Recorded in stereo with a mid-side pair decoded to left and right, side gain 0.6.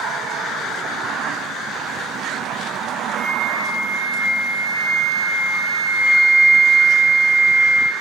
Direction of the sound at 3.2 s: 10° right.